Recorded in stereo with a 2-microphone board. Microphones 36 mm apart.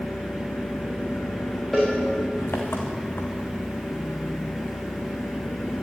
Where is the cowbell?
5° left (ahead or behind), 7 m.